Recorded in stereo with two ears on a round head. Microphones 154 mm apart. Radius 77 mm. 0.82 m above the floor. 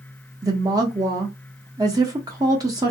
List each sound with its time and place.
0.4 s a woman speaking: 20° right (ahead or behind), 0.5 m